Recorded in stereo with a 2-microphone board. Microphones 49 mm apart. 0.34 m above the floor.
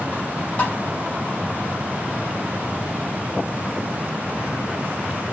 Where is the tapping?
30° left (ahead or behind), 1.7 m.